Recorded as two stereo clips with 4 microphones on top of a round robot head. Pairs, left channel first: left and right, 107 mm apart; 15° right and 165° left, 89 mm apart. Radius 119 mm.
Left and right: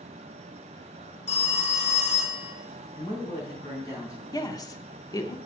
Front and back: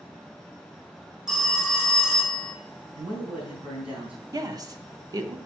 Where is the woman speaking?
135° left, 1.1 m.